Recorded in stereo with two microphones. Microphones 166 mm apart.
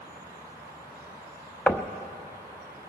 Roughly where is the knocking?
Centre.